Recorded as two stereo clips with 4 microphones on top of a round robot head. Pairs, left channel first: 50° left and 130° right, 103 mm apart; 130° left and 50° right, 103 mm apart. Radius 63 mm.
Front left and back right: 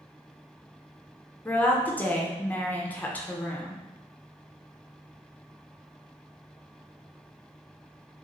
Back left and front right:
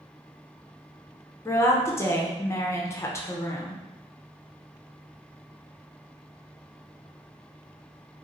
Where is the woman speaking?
105° left, 0.6 m.